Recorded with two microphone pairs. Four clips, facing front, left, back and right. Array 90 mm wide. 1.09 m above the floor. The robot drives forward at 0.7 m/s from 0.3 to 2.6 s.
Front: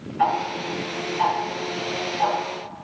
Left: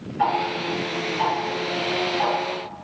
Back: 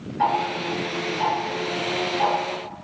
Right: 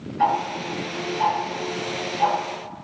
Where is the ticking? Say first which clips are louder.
Right 1 dB, even; 20° left, 1.5 m; by 2.8 s 135° left, 1.1 m.